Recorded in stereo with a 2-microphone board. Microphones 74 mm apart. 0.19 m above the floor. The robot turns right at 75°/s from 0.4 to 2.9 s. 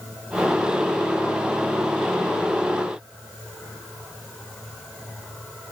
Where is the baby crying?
I don't hear a baby crying.